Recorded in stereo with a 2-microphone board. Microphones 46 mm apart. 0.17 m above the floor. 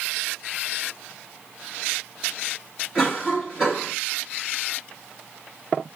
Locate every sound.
3.0 s a cough: 20° right (ahead or behind), 1.9 m